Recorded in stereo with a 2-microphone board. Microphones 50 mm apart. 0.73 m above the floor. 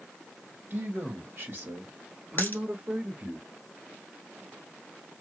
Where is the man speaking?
50° right (ahead or behind), 1.6 m; by 3.4 s 25° right (ahead or behind), 1.3 m.